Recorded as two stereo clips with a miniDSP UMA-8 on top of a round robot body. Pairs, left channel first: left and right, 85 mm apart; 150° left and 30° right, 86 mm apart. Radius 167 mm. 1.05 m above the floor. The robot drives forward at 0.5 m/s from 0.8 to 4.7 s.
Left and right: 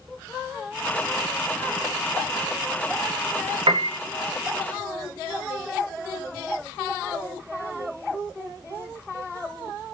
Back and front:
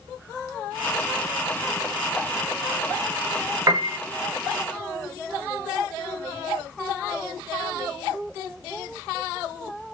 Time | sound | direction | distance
3.7 | a piano | 80° right | 0.8 m